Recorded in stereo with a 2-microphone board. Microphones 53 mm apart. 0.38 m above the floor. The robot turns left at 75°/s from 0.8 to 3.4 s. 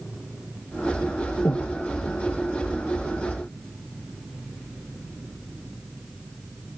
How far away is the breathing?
About 2.0 m.